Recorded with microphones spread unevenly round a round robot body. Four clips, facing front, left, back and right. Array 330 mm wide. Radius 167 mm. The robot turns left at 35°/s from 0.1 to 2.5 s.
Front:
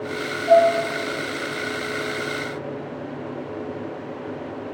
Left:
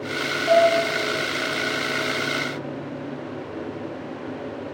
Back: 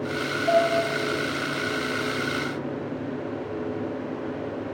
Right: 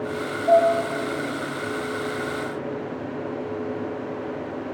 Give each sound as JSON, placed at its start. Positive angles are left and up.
{"t": 0.5, "sound": "dishes clattering", "azimuth_deg": -160, "distance_m": 5.0}